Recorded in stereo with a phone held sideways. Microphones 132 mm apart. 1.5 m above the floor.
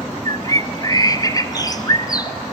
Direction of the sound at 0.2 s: 30° left (ahead or behind).